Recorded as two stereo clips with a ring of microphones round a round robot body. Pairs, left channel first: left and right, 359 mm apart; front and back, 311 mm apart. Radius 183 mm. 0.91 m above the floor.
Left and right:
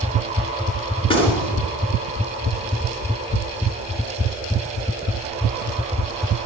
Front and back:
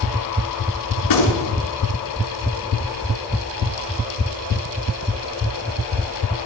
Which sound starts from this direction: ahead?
A gunshot, at 1.0 s.